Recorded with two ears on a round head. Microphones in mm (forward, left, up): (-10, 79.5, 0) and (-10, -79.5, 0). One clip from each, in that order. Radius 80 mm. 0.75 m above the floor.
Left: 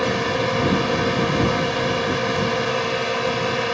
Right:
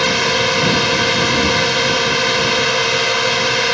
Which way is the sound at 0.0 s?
75° right (ahead or behind).